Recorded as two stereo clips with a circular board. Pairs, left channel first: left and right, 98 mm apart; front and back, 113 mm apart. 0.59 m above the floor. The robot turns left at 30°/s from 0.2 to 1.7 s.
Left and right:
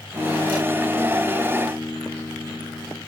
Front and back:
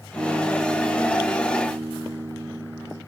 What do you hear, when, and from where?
0.1 s a guitar: 55° right, 3.5 m; by 3.0 s 100° right, 3.5 m